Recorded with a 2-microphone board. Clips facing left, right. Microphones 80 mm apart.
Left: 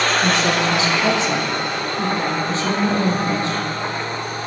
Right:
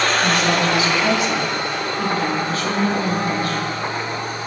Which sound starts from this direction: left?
A woman speaking, at 0.2 s.